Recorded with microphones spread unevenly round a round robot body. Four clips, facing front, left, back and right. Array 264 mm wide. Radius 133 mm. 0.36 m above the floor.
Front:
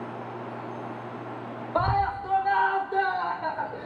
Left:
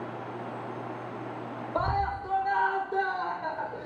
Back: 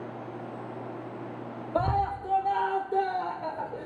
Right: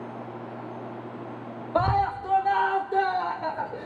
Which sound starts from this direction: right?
A scream, at 1.8 s.